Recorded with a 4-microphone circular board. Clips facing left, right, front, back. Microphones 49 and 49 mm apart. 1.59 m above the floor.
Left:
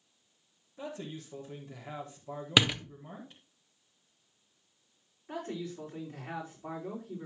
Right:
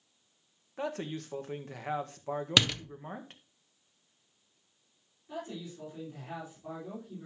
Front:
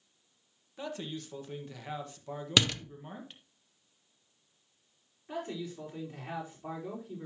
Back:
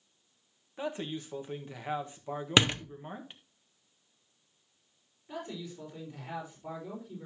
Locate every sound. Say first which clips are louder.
0.8 s a man speaking: right 5 dB, back 3 dB; 110° right, 1.5 m
2.6 s a door slam: left 2 dB, back 3 dB; 150° left, 0.5 m
5.3 s a man speaking: left 3 dB, front 3 dB; 45° left, 4.5 m